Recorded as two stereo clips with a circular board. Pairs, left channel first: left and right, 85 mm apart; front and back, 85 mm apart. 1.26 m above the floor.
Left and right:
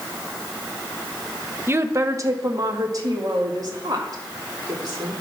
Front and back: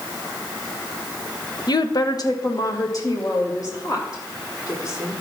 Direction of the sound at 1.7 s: 30° right.